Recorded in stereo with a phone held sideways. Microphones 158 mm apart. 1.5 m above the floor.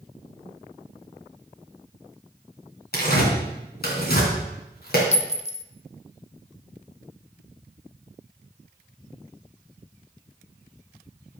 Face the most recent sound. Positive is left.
turn(degrees=40)  # may be behind; listen again after turning